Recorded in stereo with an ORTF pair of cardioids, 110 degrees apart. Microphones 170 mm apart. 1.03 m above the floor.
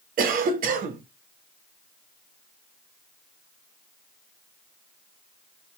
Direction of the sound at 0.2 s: 55° right.